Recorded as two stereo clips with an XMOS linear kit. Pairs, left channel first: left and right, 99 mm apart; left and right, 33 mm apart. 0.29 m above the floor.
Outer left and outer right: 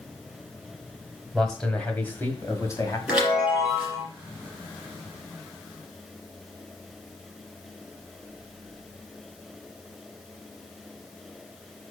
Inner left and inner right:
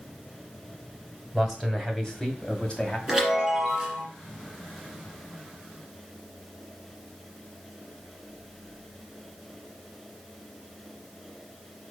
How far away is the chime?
About 4 m.